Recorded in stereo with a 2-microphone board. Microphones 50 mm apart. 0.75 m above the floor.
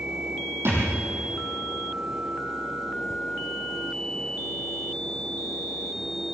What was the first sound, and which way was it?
A thud, 60° right (ahead or behind).